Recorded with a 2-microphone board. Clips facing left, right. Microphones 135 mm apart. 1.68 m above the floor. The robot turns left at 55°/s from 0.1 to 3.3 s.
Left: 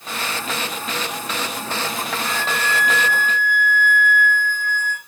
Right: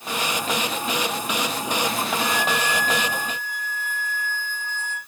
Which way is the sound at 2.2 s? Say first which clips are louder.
Right 1 dB; 170° left.